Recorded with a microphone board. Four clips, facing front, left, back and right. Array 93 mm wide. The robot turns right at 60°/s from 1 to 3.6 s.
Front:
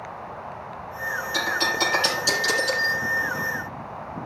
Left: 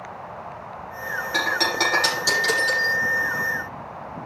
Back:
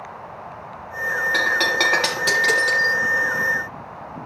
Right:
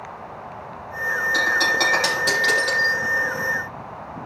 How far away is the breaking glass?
About 6.5 m.